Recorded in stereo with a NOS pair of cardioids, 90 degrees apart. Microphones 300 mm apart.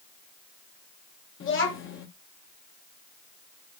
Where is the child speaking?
45° left, 1.7 m.